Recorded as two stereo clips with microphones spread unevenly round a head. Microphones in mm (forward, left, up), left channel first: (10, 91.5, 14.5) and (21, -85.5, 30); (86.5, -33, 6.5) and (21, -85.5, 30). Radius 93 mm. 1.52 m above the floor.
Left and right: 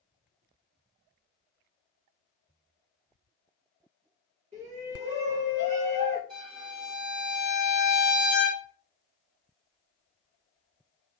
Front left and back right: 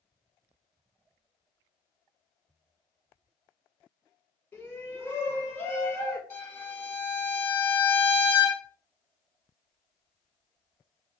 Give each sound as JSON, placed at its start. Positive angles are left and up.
{"t": 4.5, "sound": "a shout", "azimuth_deg": -35, "distance_m": 1.3}
{"t": 6.3, "sound": "a violin", "azimuth_deg": -40, "distance_m": 1.2}